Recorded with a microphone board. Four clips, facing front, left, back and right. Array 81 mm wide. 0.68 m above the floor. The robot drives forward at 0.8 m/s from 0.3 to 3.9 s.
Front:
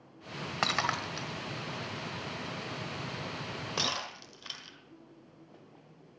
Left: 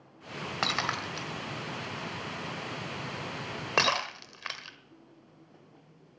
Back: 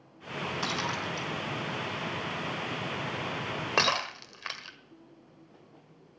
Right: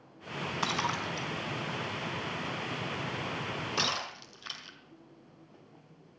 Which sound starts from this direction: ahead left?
Breaking glass, at 0.6 s.